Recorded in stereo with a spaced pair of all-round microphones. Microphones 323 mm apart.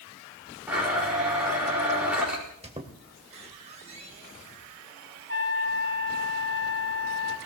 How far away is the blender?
About 5.5 m.